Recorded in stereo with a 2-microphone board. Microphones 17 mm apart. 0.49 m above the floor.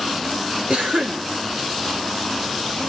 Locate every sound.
0.7 s a cough: 80° right, 4.5 m